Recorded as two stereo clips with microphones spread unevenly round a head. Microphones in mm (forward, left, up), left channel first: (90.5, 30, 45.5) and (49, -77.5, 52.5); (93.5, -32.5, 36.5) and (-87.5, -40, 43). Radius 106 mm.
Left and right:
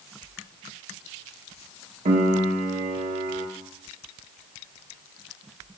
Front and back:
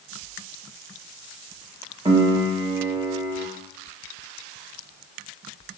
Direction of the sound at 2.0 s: 115° right.